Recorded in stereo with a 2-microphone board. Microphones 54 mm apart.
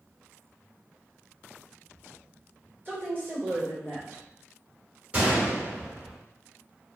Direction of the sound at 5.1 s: 25° right (ahead or behind).